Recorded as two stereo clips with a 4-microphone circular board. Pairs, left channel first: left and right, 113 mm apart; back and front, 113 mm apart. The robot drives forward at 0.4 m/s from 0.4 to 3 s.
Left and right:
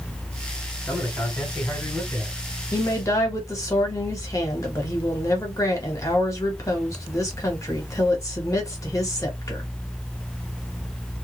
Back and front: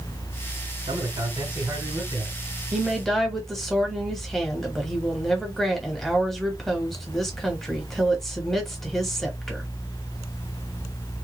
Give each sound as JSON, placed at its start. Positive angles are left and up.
{"t": 0.9, "sound": "a man speaking", "azimuth_deg": 15, "distance_m": 2.0}
{"t": 2.7, "sound": "a woman speaking", "azimuth_deg": 80, "distance_m": 1.0}